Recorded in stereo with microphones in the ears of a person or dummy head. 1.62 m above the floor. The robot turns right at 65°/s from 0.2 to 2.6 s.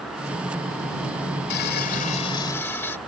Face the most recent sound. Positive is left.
turn(degrees=165)